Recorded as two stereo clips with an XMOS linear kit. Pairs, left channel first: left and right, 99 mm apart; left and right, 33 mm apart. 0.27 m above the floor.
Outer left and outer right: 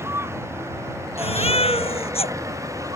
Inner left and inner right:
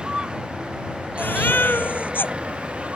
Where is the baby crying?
85° left.